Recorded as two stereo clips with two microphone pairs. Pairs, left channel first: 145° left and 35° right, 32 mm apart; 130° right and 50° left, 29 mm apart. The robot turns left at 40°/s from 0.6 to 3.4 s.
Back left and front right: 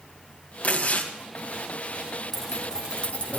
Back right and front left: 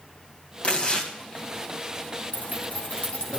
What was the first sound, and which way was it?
Tearing paper, 175° right.